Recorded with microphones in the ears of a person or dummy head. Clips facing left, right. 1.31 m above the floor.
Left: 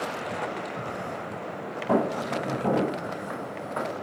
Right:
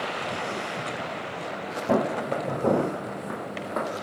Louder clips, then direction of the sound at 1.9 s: Even; 45° right (ahead or behind).